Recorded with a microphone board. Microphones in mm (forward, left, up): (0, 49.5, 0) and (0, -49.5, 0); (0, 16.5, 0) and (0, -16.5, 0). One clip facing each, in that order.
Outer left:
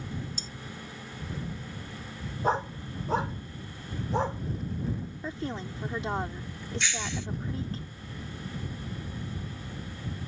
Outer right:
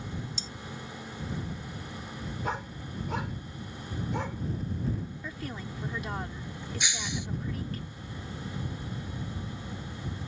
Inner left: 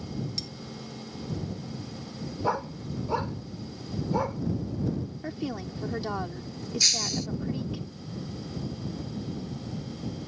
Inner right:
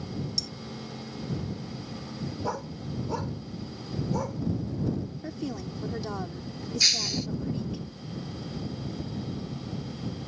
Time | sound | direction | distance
0.4 | cutlery clinking | 45° left (ahead or behind) | ?
2.4 | a dog barking | 35° left (ahead or behind) | ?
5.2 | a woman speaking | 30° left (ahead or behind) | ?
6.8 | breaking glass | 15° right (ahead or behind) | ?